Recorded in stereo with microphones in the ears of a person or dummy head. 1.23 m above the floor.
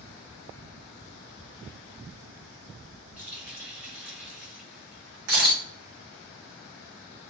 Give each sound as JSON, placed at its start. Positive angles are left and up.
{"t": 3.2, "sound": "a running tap", "side_deg": -10, "distance_m": 1.1}
{"t": 5.3, "sound": "a camera shutter", "side_deg": -45, "distance_m": 1.1}